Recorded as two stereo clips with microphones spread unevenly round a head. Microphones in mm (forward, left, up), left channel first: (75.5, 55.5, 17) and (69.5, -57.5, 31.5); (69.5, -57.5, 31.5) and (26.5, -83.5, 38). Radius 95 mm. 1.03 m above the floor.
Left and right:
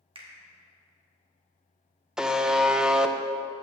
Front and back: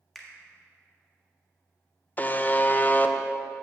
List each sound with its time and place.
0.1 s a finger snap: 55° right, 1.6 m
2.2 s a buzzer: 5° right, 0.6 m